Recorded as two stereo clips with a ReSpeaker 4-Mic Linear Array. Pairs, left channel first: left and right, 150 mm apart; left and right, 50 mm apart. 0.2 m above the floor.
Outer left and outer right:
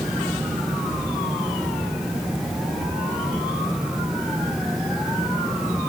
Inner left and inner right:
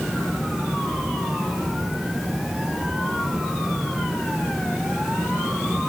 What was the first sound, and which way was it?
Only background noise.